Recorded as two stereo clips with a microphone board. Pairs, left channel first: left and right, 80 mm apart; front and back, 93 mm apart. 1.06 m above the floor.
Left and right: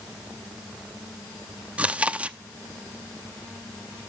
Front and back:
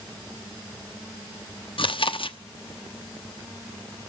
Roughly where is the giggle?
No giggle in this recording.